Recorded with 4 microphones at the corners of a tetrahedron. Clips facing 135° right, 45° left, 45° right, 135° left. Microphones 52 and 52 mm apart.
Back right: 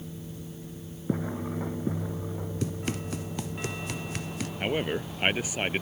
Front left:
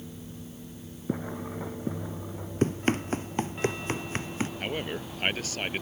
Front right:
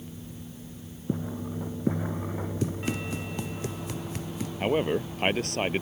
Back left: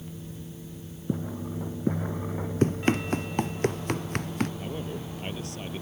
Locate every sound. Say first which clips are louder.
2.6 s running footsteps: front left 9 dB, back left 8 dB; 95° left; by 4.5 s 100° left
4.6 s a man speaking: back right 4 dB, front right 9 dB; 60° right